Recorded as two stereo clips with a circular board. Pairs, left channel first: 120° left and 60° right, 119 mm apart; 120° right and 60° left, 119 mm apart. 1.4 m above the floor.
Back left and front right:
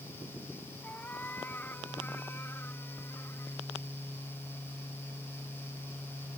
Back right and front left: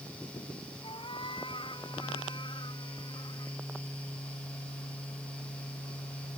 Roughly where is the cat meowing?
Behind.